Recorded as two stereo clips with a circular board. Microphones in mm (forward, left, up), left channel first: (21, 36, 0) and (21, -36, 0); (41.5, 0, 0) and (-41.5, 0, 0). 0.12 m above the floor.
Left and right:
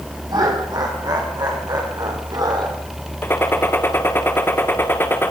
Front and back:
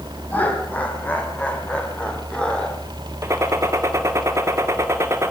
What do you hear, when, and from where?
0.3 s laughter: 70° right, 6 m; by 2.8 s 75° right, 5 m
3.2 s a gunshot: 140° left, 2.0 m